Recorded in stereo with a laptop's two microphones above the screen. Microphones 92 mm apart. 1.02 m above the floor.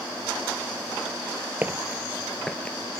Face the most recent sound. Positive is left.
turn(degrees=15)  # may be behind; listen again after turning